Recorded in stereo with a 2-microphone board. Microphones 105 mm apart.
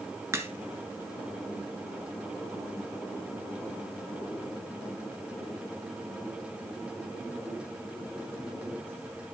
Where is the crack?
30° right (ahead or behind), 1.1 m.